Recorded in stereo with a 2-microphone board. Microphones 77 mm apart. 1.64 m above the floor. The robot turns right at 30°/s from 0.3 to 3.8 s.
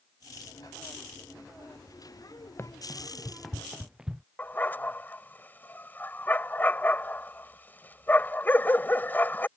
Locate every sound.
2.6 s running footsteps: 35° left (ahead or behind); by 4.2 s 10° right (ahead or behind)
4.4 s a dog barking: 25° left (ahead or behind)